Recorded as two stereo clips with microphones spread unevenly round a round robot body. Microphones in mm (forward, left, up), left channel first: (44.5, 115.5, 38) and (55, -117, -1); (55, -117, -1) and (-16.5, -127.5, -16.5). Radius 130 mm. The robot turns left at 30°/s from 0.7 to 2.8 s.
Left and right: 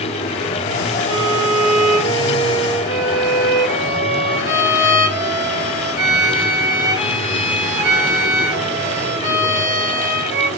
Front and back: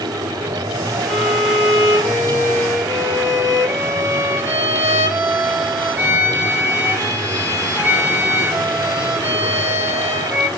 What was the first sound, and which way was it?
A violin, 115° right.